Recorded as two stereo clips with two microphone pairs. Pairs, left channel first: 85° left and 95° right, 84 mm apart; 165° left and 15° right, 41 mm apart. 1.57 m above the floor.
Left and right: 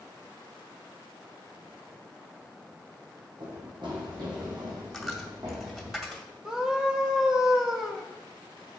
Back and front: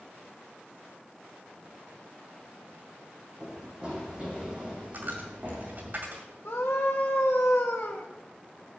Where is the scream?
Straight behind, 1.8 m.